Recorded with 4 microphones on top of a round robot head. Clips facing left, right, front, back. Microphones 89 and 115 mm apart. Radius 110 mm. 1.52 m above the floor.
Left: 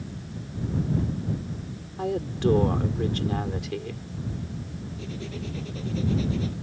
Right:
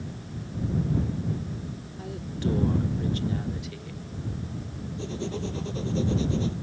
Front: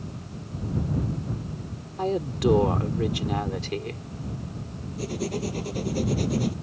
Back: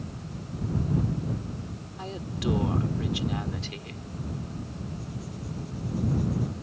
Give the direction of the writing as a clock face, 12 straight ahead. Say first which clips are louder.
Right 5 dB, front 10 dB; 1 o'clock.